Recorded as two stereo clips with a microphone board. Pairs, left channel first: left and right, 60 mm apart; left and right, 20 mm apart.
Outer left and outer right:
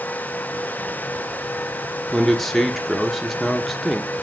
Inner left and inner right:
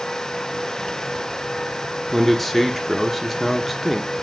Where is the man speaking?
5° left (ahead or behind), 1.3 m.